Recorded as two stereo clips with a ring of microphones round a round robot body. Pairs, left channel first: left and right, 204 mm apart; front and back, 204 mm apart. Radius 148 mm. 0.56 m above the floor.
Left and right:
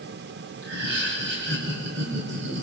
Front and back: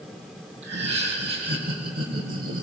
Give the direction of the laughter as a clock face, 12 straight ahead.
4 o'clock.